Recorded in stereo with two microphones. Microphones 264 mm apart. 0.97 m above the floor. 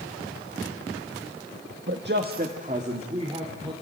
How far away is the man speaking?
About 1.4 m.